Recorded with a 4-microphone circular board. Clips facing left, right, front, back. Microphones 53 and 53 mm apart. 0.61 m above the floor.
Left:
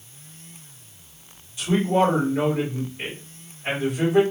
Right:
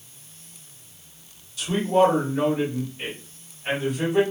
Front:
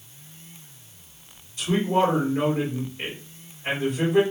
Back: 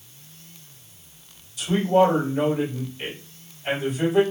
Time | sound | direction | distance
1.6 | a man speaking | 30° left | 1.5 m